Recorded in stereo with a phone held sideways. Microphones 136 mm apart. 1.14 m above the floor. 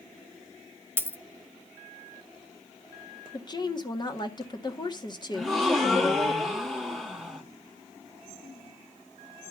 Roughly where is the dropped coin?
Centre.